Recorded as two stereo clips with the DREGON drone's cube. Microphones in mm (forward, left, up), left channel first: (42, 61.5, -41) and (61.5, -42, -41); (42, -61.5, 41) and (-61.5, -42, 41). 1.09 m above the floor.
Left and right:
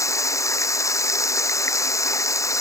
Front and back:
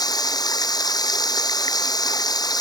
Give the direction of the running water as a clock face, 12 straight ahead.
11 o'clock.